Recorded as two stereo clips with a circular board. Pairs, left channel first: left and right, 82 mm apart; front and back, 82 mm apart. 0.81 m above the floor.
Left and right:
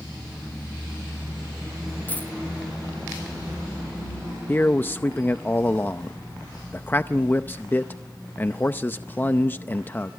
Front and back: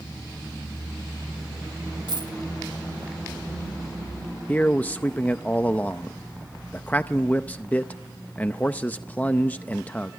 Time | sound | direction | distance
2.1 | a dropped coin | 160° left | 2.5 m
4.5 | a man speaking | 55° left | 0.6 m